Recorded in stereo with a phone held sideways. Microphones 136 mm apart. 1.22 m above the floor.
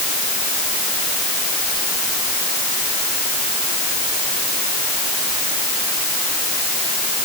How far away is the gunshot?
I don't hear a gunshot.